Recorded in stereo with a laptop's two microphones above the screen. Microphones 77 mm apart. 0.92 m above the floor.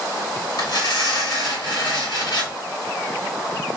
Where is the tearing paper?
65° left (ahead or behind), 1.4 m.